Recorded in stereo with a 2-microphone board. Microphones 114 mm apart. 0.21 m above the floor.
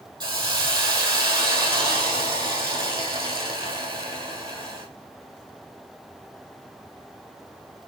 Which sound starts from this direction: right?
A hiss, at 0.2 s.